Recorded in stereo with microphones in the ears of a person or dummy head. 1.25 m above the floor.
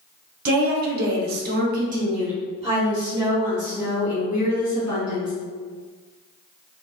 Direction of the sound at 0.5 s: 40° right (ahead or behind).